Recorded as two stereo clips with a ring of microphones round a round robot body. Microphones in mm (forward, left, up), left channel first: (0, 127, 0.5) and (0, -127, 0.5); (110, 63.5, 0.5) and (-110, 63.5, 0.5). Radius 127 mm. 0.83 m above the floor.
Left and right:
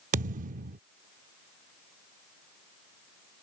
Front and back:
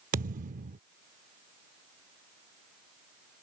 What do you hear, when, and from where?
0.1 s a thud: 140° right